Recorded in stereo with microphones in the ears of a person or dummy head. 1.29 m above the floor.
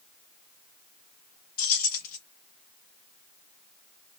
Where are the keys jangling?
50° left (ahead or behind), 0.8 m.